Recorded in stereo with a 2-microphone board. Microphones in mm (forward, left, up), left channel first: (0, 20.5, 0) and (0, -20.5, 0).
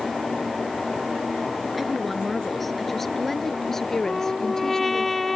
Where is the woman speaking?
Centre (ahead or behind); by 5.1 s 15° left (ahead or behind).